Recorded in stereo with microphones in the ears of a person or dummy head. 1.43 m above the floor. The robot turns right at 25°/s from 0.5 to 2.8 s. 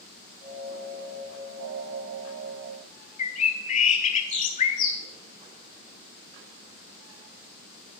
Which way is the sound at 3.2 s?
40° left (ahead or behind).